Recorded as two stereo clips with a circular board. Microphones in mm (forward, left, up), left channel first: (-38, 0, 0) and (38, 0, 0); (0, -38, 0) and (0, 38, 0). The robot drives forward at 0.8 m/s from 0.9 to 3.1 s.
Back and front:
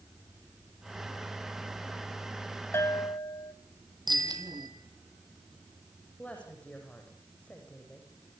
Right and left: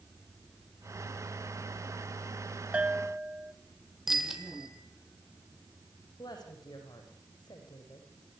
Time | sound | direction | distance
2.7 | a bell | 150° left | 0.6 m
4.1 | a bicycle bell | 5° left | 3.5 m
6.2 | a woman speaking | 105° right | 7.5 m